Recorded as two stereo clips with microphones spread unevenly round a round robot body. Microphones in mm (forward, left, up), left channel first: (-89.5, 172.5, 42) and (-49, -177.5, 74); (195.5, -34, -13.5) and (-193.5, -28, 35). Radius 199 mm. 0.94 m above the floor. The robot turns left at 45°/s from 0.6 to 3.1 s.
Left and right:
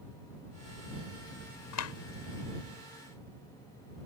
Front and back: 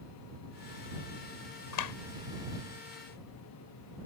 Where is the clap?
50° left; by 1.9 s 40° left.